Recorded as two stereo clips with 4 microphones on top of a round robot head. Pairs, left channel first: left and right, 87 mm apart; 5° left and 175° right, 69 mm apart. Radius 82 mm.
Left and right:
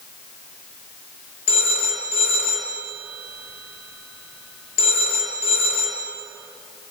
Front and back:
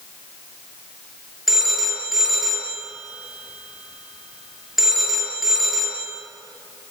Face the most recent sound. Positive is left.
turn(degrees=95)